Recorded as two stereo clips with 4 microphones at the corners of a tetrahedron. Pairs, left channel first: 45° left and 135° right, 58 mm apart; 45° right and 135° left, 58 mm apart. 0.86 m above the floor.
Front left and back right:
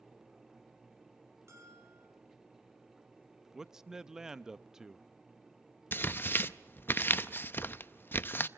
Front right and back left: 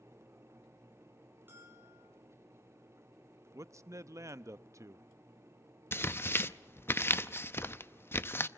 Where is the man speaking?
145° left, 0.6 m.